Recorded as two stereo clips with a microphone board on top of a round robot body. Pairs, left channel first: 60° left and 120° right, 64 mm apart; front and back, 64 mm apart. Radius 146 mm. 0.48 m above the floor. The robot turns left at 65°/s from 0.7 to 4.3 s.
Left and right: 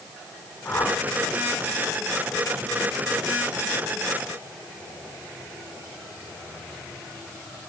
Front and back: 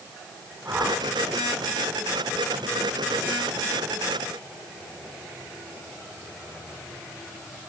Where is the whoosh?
120° left, 4.5 m; by 1.0 s 105° left, 4.5 m.